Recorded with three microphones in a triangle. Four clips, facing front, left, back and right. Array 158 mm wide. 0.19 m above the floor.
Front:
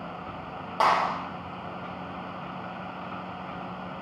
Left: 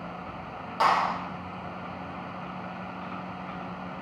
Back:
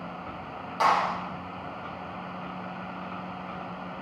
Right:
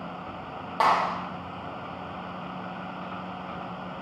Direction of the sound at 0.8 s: 55° right.